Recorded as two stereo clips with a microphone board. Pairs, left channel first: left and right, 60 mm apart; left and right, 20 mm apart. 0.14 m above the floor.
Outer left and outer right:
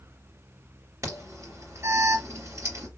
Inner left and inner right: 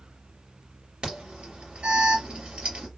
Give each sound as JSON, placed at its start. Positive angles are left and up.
{"t": 1.0, "sound": "an alarm", "side_deg": -55, "distance_m": 3.5}